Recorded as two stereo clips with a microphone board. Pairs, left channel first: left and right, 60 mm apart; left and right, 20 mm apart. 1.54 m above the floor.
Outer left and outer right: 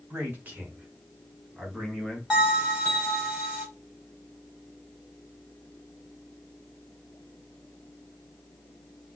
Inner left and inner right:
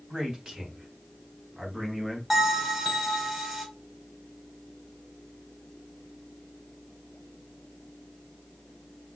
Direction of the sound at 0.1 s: 35° right (ahead or behind).